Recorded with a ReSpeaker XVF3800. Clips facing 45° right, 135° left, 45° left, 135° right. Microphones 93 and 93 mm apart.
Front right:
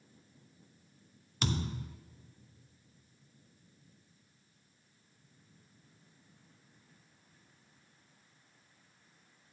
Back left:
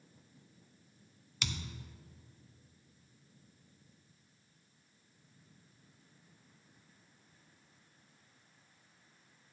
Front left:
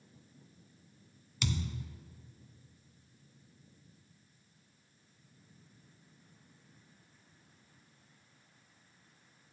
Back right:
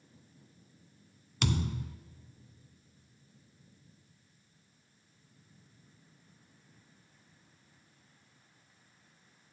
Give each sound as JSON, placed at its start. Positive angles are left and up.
{"t": 1.4, "sound": "a thud", "azimuth_deg": -95, "distance_m": 0.5}